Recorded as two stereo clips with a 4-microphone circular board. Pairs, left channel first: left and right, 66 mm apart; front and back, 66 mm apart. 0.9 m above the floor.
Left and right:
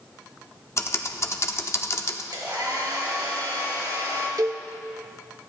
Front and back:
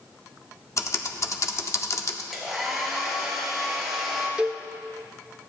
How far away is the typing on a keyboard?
About 0.9 m.